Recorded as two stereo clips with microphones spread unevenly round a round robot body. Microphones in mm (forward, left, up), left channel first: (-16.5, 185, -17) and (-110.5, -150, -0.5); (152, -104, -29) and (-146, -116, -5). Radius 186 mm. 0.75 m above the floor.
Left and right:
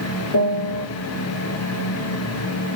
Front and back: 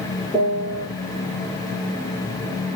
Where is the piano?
85° left, 8.5 m.